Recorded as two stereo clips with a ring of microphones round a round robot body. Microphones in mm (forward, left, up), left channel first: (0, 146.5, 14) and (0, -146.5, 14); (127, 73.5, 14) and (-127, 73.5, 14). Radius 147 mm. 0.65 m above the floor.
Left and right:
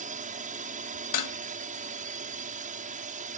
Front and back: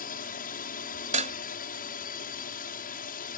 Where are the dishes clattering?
115° left.